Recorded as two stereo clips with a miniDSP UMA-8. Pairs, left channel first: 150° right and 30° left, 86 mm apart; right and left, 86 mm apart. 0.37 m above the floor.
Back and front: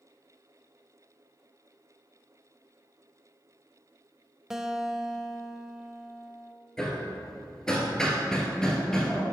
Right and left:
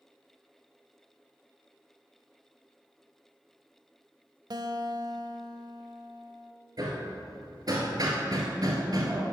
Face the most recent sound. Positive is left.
turn(degrees=130)